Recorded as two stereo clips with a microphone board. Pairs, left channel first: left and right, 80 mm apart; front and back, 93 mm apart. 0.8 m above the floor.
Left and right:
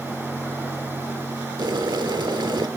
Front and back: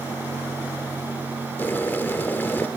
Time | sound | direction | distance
1.6 | boiling | 65° right | 1.3 m